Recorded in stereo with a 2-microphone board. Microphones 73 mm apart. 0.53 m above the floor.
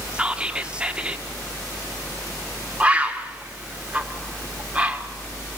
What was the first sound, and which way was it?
Whispering, 15° right (ahead or behind).